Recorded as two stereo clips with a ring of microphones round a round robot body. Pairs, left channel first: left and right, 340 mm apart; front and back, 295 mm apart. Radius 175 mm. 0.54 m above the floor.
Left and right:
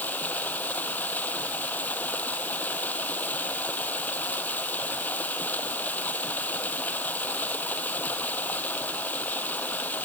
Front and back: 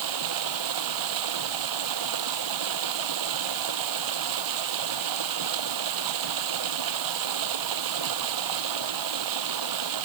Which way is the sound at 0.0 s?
175° left.